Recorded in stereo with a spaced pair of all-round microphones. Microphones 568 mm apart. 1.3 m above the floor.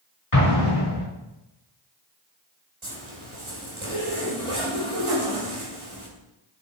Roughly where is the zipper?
Right.